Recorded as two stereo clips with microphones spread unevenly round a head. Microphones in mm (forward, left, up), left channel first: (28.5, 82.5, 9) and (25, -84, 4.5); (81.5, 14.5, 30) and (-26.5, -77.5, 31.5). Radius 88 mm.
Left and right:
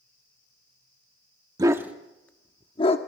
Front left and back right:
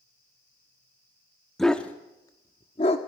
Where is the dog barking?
45° right, 1.2 m; by 3.0 s 70° left, 1.3 m.